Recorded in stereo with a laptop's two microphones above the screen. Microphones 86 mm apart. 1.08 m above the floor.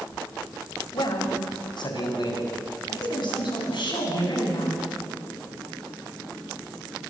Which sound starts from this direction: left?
A man speaking, at 0.9 s.